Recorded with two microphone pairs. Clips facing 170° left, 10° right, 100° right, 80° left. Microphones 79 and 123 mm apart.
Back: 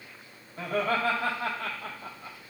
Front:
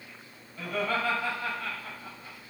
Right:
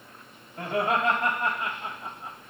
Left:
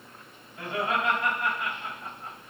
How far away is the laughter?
About 2.0 m.